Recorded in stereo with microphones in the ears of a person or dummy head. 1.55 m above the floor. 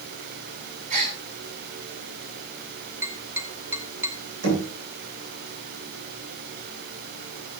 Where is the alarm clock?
No alarm clock in this recording.